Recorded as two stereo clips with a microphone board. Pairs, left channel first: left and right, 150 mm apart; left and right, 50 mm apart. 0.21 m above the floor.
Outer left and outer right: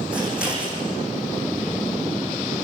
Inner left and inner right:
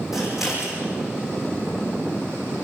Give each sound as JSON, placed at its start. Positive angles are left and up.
{"t": 0.1, "sound": "scissors", "side_deg": -5, "distance_m": 7.5}